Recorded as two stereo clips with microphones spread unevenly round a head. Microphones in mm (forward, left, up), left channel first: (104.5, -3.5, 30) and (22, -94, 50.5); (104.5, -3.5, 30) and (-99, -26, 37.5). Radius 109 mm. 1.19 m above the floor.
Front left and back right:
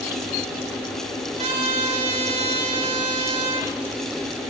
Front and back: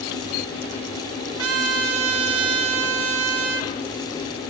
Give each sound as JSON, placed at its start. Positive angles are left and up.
{"t": 1.4, "sound": "a trumpet", "azimuth_deg": 170, "distance_m": 1.5}